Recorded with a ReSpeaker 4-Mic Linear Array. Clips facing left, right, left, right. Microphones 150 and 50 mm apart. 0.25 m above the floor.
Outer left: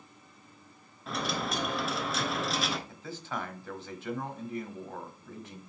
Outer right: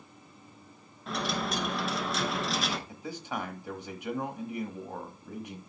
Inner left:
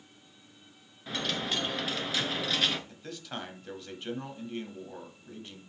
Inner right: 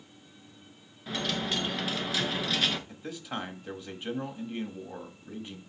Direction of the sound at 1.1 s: Centre (ahead or behind).